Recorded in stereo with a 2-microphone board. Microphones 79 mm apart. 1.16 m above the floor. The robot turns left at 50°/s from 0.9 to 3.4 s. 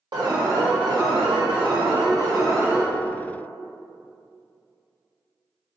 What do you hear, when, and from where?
0.1 s an alarm: 60° right, 1.2 m; by 2.9 s 160° right, 1.2 m